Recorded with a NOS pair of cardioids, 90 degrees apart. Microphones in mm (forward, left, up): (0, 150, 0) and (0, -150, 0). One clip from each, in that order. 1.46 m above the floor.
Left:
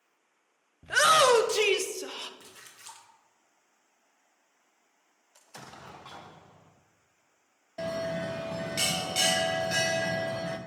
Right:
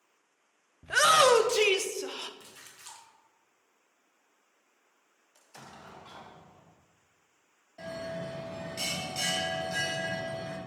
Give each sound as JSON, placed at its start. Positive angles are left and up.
{"t": 0.8, "sound": "a shout", "azimuth_deg": 5, "distance_m": 0.5}
{"t": 2.4, "sound": "a splash", "azimuth_deg": 5, "distance_m": 1.0}
{"t": 5.3, "sound": "an explosion", "azimuth_deg": 25, "distance_m": 0.6}
{"t": 7.8, "sound": "a bell", "azimuth_deg": 50, "distance_m": 0.8}